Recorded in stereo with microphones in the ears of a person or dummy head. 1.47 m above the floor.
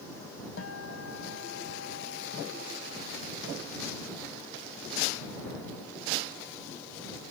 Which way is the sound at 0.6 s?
90° left.